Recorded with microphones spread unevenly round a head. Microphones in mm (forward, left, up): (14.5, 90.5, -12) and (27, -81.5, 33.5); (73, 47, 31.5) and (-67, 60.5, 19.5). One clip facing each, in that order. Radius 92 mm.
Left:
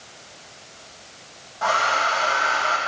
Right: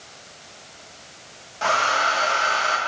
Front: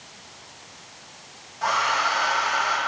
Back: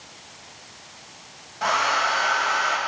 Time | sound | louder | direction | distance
1.6 | a hair dryer | even, back 1 dB | 135° right | 1.6 m